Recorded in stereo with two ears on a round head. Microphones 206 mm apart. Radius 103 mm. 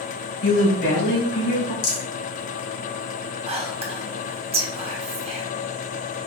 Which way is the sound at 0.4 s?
70° left (ahead or behind).